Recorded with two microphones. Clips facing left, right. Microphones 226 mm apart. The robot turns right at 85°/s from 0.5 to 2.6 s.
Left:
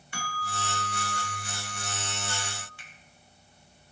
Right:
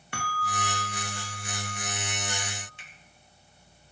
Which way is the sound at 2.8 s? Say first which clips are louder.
Even; 20° right (ahead or behind).